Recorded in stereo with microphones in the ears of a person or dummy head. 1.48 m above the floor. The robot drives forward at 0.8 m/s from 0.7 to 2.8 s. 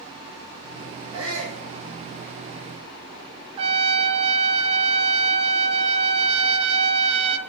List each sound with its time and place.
1.1 s a shout: 85° right, 1.6 m; by 1.6 s 75° right (ahead or behind), 1.6 m
3.6 s a trumpet: 35° right (ahead or behind), 0.8 m